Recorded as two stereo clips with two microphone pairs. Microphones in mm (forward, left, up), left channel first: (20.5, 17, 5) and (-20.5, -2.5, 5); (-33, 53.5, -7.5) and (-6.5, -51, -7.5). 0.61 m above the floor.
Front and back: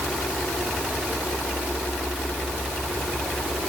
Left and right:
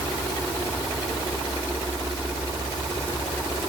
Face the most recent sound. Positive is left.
No sound to turn to.